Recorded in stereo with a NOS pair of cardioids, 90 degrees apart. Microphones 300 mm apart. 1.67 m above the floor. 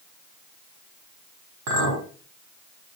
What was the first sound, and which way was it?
A clink, 70° right.